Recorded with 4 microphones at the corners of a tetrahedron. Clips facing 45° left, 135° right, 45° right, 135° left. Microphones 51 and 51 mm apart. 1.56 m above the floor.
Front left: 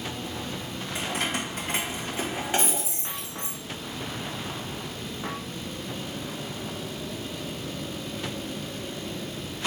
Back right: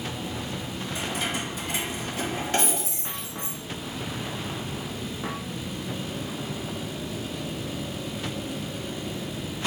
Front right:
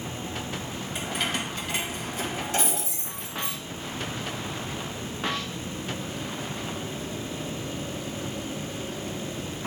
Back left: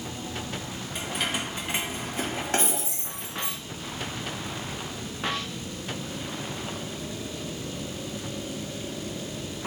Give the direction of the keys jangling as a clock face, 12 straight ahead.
11 o'clock.